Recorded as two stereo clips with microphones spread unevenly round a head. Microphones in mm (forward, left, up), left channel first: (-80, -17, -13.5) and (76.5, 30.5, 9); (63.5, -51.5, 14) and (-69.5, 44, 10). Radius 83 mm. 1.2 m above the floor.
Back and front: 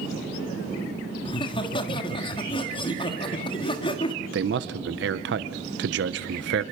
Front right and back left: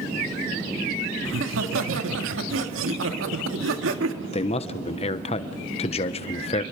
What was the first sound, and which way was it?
Laughter, 135° left.